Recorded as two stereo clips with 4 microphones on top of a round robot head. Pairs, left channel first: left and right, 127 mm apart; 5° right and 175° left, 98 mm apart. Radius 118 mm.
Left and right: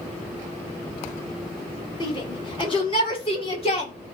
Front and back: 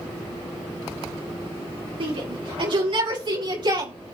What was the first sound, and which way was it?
A shout, 145° left.